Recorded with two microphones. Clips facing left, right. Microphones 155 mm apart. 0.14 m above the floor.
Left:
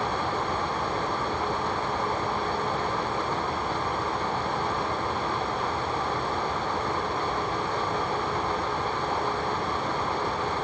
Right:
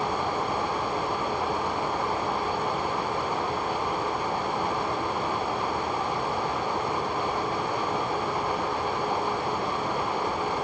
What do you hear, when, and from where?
Only background noise.